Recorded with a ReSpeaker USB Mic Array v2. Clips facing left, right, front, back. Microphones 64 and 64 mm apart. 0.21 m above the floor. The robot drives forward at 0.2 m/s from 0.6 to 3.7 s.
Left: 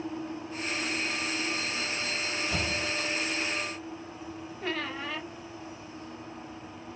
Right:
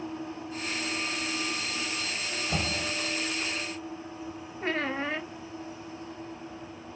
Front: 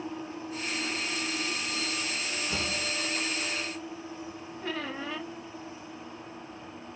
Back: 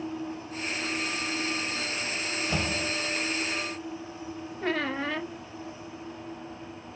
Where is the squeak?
145° right, 0.6 m.